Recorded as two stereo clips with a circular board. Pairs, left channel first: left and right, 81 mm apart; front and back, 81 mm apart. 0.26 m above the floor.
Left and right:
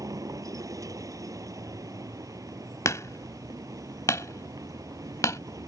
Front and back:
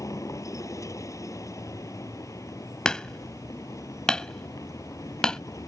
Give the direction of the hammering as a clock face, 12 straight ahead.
9 o'clock.